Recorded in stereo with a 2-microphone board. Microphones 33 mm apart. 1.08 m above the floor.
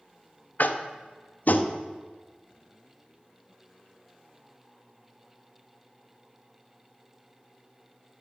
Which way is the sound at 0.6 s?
55° left (ahead or behind).